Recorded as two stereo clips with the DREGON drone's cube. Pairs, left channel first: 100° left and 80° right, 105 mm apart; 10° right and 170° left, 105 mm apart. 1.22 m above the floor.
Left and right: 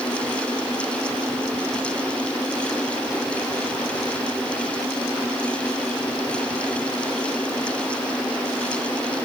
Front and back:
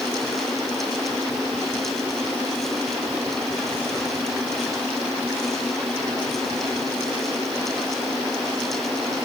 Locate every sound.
Only background noise.